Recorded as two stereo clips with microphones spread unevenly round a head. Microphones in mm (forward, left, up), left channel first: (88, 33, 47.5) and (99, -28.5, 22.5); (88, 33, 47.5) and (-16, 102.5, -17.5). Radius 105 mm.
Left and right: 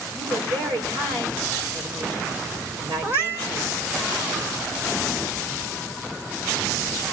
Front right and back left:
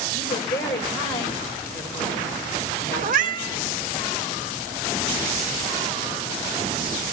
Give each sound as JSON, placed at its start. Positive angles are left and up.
{"t": 0.1, "sound": "a woman speaking", "azimuth_deg": -75, "distance_m": 7.0}
{"t": 3.0, "sound": "a cat meowing", "azimuth_deg": -165, "distance_m": 1.1}